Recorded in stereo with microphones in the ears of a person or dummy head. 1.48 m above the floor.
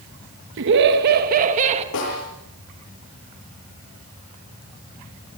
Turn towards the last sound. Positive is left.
turn(degrees=70)  # may be behind; listen again after turning